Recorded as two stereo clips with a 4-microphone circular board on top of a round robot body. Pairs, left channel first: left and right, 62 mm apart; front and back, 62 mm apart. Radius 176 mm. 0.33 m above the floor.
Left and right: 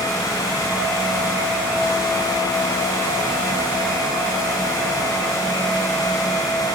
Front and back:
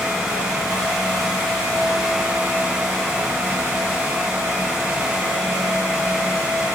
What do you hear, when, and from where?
Only background noise.